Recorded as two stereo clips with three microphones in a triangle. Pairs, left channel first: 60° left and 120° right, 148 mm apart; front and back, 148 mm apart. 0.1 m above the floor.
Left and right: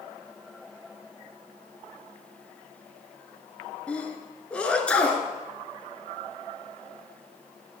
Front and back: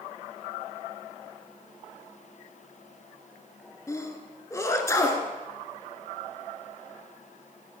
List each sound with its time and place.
3.9 s a sneeze: 5° right, 1.4 m